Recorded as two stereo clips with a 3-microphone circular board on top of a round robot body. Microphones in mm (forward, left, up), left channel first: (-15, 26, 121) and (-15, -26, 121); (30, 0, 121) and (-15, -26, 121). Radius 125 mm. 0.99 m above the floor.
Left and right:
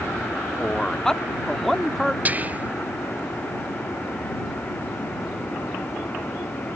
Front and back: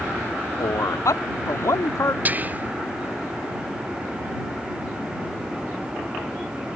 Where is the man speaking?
15° left; by 2.1 s straight ahead.